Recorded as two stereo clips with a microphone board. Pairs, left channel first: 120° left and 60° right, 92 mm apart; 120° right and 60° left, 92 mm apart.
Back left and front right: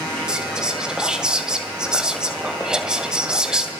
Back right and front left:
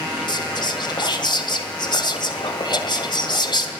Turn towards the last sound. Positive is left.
turn(degrees=-140)